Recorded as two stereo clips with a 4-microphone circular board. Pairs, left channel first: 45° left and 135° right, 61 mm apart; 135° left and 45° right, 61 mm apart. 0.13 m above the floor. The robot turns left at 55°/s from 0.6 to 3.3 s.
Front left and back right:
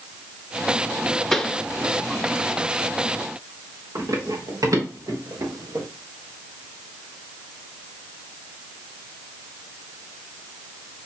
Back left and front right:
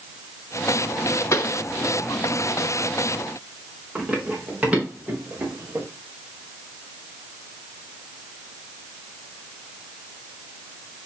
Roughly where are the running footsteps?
Behind right.